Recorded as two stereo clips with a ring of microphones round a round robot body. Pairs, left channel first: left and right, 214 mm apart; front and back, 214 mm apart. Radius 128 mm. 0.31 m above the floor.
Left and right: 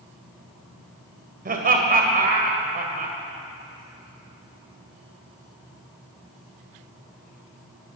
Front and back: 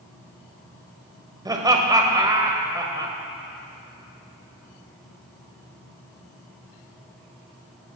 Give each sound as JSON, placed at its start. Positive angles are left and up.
{"t": 1.4, "sound": "laughter", "azimuth_deg": -115, "distance_m": 2.0}